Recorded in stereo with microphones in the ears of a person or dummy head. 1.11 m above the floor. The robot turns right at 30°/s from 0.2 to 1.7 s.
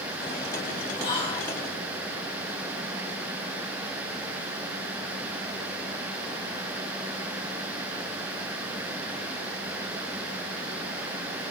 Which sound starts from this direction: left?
Whispering, at 1.0 s.